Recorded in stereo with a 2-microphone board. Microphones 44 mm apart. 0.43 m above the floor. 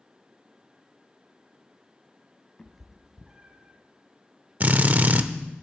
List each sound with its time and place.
2.6 s a cat meowing: 15° left (ahead or behind), 0.6 m; by 3.8 s 35° right (ahead or behind), 1.0 m
4.6 s a drill: 40° right (ahead or behind), 0.6 m